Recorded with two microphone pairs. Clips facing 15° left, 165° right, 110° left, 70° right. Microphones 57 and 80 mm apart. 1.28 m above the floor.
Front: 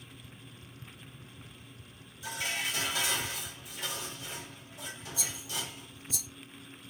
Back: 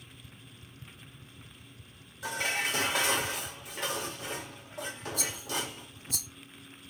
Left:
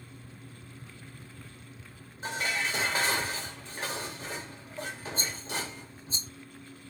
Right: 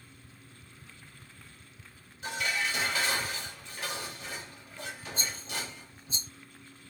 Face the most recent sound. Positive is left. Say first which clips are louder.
# back 4 dB, left 2 dB
turn(degrees=165)